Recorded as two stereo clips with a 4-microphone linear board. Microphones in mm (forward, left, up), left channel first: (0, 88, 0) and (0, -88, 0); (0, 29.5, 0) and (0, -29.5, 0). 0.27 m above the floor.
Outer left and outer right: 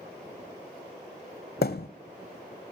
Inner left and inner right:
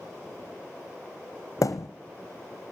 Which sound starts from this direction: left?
A thud, at 1.6 s.